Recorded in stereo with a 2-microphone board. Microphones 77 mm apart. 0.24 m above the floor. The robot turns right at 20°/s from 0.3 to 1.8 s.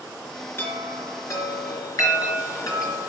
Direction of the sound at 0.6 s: 30° left (ahead or behind).